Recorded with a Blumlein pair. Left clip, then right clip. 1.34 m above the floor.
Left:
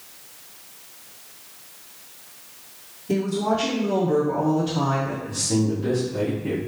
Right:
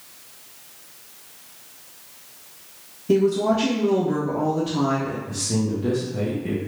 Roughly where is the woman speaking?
Ahead right.